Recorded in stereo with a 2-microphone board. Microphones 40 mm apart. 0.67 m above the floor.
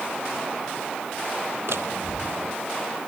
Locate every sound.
1.7 s a door slam: 75° right (ahead or behind)